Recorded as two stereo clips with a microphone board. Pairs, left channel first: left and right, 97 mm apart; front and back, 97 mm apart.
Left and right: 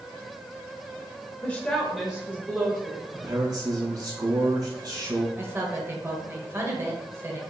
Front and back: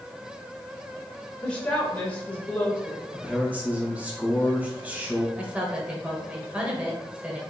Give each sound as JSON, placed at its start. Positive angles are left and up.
{"t": 1.4, "sound": "a woman speaking", "azimuth_deg": 55, "distance_m": 0.8}
{"t": 3.1, "sound": "a man speaking", "azimuth_deg": -115, "distance_m": 1.4}
{"t": 5.4, "sound": "a woman speaking", "azimuth_deg": -115, "distance_m": 1.0}